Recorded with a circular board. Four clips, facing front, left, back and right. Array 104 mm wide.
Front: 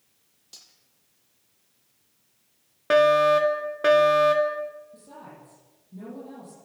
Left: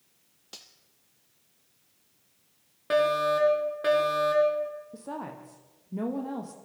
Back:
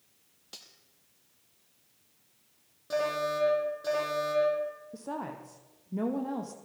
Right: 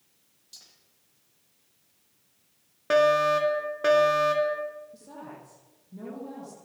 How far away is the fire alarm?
About 4.5 m.